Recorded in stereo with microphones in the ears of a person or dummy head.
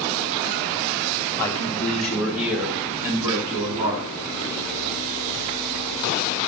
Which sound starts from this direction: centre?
A man speaking, at 1.4 s.